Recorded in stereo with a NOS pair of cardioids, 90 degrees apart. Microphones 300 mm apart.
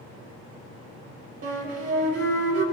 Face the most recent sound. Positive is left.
turn(degrees=-50)